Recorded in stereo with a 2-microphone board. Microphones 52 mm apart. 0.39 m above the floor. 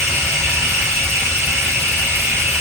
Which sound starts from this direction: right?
Running water, at 0.0 s.